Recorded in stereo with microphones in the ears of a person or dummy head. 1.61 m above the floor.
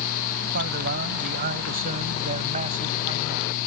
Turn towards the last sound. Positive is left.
turn(degrees=-35)  # may be behind; listen again after turning